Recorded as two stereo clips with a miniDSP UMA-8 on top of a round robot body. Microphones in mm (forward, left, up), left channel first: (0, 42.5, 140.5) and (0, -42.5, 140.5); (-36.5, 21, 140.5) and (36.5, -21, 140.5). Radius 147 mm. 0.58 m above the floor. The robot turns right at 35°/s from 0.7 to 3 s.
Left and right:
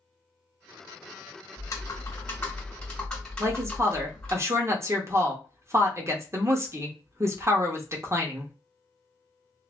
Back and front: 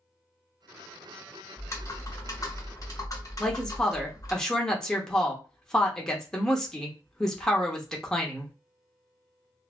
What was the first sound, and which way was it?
Typing on a keyboard, 115° left.